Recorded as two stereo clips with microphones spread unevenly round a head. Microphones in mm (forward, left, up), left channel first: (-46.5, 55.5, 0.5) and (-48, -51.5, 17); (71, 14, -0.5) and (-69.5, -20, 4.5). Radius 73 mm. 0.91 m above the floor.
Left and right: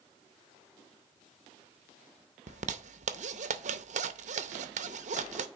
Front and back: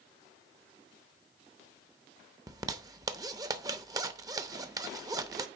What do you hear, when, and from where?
2.5 s a zipper: 100° right, 0.7 m